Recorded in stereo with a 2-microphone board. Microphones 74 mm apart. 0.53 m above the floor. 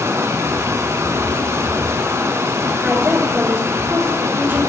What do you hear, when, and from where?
0.0 s running water: 40° right (ahead or behind), 1.1 m
2.8 s a woman speaking: 25° right (ahead or behind), 2 m